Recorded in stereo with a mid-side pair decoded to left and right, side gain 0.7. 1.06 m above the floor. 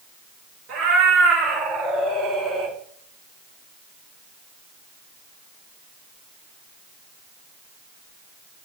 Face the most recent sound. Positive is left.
turn(degrees=-45)